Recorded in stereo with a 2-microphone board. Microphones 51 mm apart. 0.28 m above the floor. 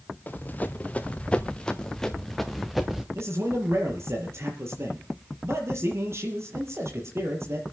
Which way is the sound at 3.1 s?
55° right (ahead or behind).